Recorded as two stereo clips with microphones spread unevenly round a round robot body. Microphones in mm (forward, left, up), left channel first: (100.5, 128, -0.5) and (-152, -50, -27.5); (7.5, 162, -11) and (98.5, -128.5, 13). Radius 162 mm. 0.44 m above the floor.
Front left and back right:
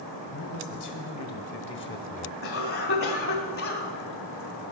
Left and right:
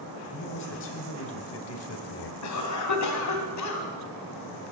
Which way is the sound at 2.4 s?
85° left.